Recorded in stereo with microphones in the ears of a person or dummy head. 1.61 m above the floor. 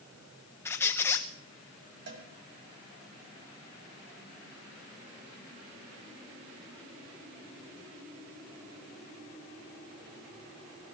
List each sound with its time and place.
0.7 s a squeak: 10° left (ahead or behind), 1.2 m
2.1 s a cowbell: 65° right (ahead or behind), 3 m